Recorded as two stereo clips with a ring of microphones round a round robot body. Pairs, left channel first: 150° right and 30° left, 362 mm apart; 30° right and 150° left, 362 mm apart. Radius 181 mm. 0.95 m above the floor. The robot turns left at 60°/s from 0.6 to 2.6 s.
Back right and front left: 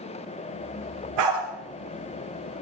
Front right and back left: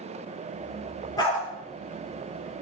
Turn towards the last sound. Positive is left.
turn(degrees=-35)